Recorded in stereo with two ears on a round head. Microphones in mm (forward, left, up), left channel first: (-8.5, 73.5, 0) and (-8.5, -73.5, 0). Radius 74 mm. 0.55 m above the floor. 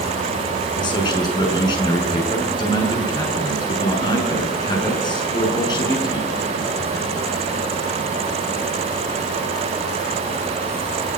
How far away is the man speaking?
About 7.5 m.